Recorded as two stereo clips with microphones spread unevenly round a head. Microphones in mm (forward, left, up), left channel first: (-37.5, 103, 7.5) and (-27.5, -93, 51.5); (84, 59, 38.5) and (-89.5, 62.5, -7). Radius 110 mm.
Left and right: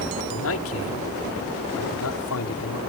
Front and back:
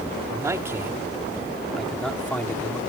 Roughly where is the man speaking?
Left.